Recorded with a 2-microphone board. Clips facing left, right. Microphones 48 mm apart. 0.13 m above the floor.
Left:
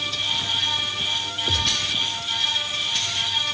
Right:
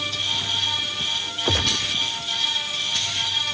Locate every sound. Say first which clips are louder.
1.4 s a gunshot: right 2 dB; 50° right (ahead or behind)